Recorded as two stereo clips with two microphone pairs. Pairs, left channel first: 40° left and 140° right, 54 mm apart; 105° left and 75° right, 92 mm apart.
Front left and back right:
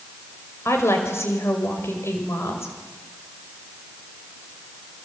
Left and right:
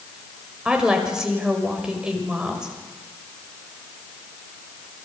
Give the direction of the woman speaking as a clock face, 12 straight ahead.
12 o'clock.